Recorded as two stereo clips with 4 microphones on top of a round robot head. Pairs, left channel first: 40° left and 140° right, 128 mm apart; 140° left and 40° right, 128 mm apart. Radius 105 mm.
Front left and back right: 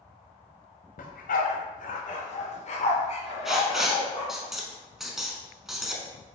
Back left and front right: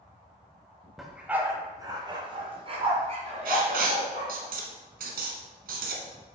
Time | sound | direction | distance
1.0 | a dog barking | 50° left | 0.9 m
3.5 | writing | 55° right | 0.9 m